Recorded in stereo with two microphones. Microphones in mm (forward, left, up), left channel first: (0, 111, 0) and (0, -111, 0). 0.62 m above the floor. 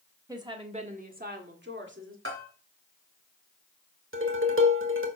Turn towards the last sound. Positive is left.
turn(degrees=-65)  # may be behind; listen again after turning